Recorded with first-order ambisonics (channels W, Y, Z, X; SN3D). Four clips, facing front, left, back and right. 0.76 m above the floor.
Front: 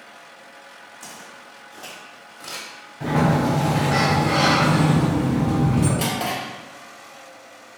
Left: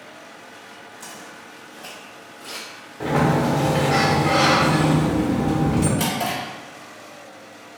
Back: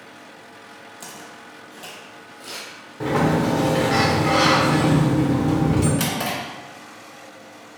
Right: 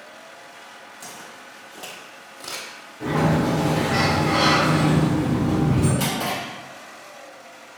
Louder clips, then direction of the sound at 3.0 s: Left 1 dB, even; 150° left.